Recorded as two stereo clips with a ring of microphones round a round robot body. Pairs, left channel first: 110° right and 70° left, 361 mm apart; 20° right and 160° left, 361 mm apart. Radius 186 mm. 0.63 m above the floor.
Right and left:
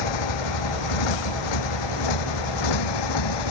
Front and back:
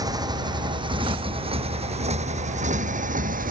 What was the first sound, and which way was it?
A motorcycle, 120° right.